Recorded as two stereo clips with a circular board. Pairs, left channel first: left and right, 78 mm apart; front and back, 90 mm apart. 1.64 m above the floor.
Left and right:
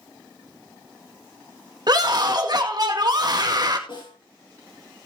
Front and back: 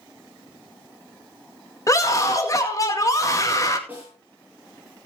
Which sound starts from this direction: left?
A snare drum, at 3.9 s.